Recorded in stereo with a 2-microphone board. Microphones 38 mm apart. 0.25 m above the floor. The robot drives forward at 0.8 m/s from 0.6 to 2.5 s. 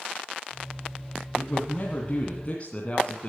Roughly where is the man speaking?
Left.